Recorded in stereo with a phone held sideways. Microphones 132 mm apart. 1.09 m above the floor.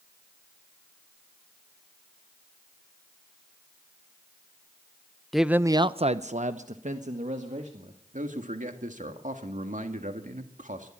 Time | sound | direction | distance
5.3 | a man speaking | centre (ahead or behind) | 0.8 m
8.1 | a man speaking | 75° right (ahead or behind) | 1.8 m